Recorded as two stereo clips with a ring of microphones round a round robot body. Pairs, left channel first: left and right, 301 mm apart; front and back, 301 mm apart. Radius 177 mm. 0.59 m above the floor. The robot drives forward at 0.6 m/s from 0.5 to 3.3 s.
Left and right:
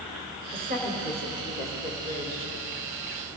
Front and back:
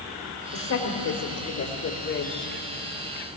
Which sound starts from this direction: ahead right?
A woman speaking, at 0.5 s.